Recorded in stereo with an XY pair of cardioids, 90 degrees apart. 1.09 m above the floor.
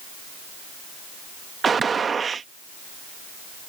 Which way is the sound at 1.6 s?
45° right.